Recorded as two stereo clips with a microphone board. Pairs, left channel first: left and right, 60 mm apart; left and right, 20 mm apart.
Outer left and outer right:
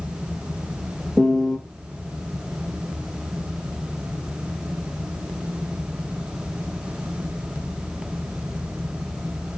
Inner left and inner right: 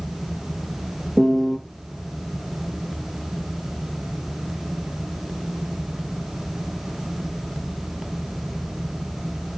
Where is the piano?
5° left (ahead or behind), 1.6 m.